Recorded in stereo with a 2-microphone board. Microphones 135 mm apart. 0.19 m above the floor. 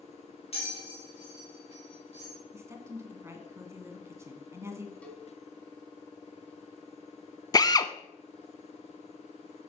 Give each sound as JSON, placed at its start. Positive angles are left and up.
{"t": 0.5, "sound": "a bell", "side_deg": 50, "distance_m": 4.0}
{"t": 2.5, "sound": "a woman speaking", "side_deg": -20, "distance_m": 1.8}
{"t": 5.0, "sound": "a cowbell", "side_deg": 10, "distance_m": 1.8}
{"t": 7.5, "sound": "a drill", "side_deg": 30, "distance_m": 0.6}